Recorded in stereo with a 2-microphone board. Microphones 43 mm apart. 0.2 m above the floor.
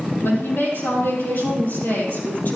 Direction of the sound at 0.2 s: 70° left (ahead or behind).